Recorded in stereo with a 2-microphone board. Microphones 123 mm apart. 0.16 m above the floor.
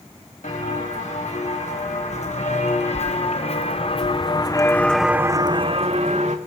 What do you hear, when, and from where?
0.4 s footsteps: 70° left (ahead or behind), 4 m; by 6.4 s 70° right (ahead or behind), 1.2 m